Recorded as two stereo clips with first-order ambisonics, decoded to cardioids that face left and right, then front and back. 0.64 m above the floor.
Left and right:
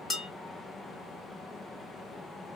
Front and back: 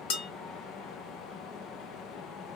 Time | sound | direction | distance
0.1 | dishes clattering | 10° left | 1.8 m